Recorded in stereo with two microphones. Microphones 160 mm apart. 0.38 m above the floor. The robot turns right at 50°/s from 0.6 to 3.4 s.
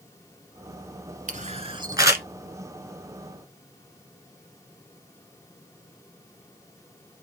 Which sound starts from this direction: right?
A camera shutter, at 1.3 s.